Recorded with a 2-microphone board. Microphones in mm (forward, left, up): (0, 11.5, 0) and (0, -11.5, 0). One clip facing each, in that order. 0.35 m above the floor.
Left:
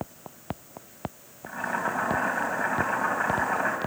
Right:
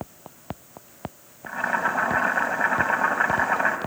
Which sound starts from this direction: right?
Boiling, at 1.5 s.